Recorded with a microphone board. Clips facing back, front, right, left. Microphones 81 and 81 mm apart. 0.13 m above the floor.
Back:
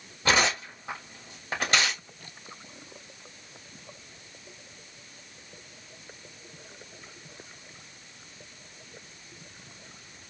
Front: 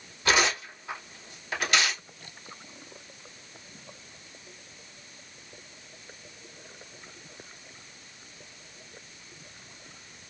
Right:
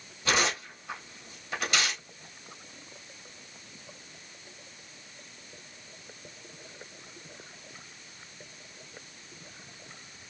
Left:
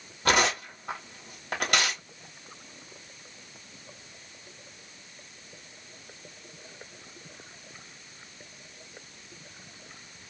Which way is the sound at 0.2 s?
125° left.